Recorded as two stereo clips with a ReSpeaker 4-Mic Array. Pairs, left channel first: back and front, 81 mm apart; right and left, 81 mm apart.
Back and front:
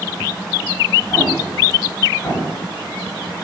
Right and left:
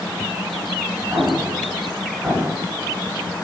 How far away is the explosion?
About 1.1 m.